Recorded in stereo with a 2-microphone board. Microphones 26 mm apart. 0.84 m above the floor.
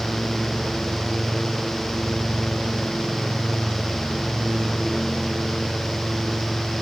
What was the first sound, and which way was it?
Only background noise.